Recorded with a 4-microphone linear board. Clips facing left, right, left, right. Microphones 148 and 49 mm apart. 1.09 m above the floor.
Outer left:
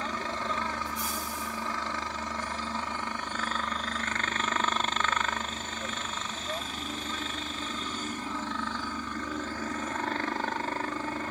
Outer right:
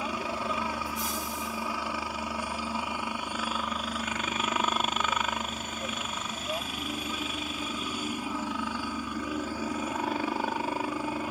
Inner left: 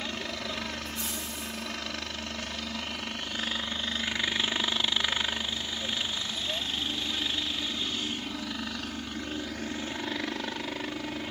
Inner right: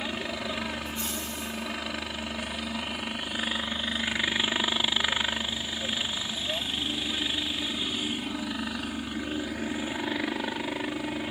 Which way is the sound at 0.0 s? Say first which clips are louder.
Outer right 2 dB, inner right 3 dB; 10° right (ahead or behind).